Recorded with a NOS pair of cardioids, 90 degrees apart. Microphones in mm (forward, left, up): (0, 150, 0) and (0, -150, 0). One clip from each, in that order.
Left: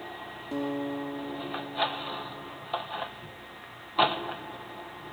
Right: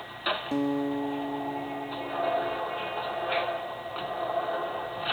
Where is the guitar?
35° right, 2.5 m.